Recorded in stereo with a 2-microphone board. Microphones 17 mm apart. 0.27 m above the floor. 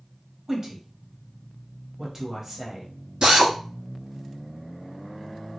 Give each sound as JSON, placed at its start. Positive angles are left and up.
{"t": 0.5, "sound": "a woman speaking", "side_deg": -25, "distance_m": 1.1}
{"t": 3.2, "sound": "a drill", "side_deg": -65, "distance_m": 1.4}